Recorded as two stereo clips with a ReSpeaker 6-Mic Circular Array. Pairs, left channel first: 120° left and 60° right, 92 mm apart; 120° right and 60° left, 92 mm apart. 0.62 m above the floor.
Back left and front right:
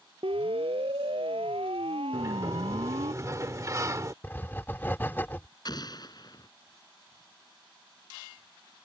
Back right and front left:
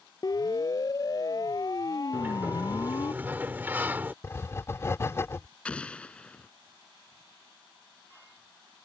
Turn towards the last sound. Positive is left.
turn(degrees=160)